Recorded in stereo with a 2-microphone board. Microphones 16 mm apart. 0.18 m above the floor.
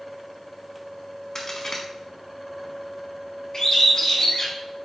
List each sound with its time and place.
1.4 s a crack: 30° left (ahead or behind), 0.8 m
3.5 s a bird: 40° left (ahead or behind), 1.1 m